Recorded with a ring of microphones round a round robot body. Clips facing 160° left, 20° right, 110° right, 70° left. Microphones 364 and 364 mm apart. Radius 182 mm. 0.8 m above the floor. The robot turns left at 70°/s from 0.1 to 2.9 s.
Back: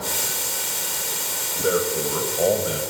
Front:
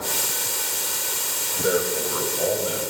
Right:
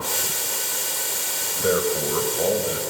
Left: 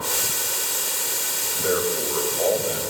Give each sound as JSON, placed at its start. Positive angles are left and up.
{"t": 1.6, "sound": "a man speaking", "azimuth_deg": -110, "distance_m": 3.5}